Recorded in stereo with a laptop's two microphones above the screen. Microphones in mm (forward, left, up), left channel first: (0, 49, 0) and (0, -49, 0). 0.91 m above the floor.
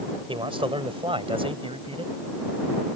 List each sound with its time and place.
0.3 s a man speaking: 65° right (ahead or behind); by 2.1 s 75° right (ahead or behind)